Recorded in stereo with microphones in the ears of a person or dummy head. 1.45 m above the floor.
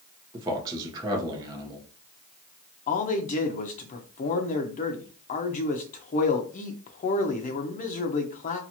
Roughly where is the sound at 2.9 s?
Left.